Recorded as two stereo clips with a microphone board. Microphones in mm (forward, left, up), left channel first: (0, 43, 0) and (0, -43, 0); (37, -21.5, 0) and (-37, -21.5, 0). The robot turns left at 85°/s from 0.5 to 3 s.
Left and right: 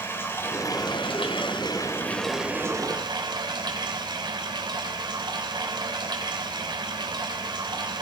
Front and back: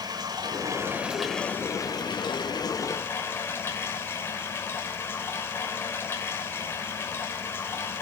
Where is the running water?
155° left, 3 m; by 8.0 s 60° right, 3 m.